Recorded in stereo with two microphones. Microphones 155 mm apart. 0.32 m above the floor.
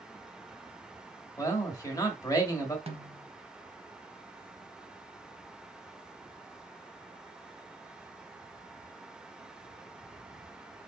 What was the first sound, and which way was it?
A man speaking, 25° left (ahead or behind).